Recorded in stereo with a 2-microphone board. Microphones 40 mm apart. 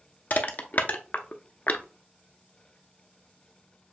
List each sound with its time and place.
0.3 s crushing: 45° left (ahead or behind), 0.6 m